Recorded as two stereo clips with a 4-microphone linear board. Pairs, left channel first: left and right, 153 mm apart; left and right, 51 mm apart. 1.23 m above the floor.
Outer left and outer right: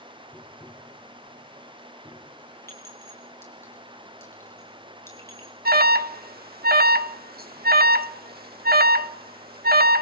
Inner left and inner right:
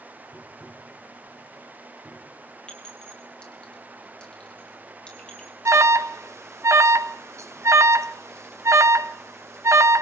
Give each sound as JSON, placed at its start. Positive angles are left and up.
{"t": 0.3, "sound": "tapping", "side_deg": -5, "distance_m": 1.7}
{"t": 2.7, "sound": "a clink", "side_deg": 15, "distance_m": 5.5}
{"t": 5.7, "sound": "an alarm", "side_deg": -85, "distance_m": 0.8}